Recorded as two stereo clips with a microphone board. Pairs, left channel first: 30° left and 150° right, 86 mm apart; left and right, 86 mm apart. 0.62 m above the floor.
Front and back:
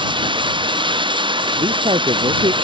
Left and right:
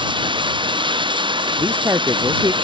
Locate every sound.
0.0 s running water: 120° right
1.6 s a man speaking: 150° right